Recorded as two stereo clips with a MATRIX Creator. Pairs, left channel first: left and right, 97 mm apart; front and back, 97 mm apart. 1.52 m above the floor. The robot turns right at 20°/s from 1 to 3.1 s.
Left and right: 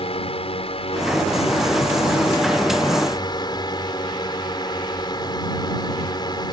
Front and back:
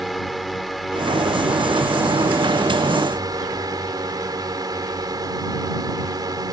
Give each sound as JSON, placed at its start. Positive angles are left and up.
{"t": 0.0, "sound": "a drone", "azimuth_deg": 90}